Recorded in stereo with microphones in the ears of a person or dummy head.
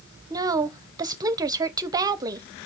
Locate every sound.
0.3 s a woman speaking: 20° right (ahead or behind), 0.7 m